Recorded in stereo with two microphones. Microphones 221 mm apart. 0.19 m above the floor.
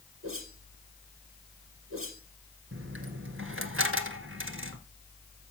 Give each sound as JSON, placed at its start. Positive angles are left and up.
{"t": 0.2, "sound": "a whoosh", "side_deg": -75, "distance_m": 5.5}
{"t": 2.7, "sound": "a dropped coin", "side_deg": -70, "distance_m": 1.6}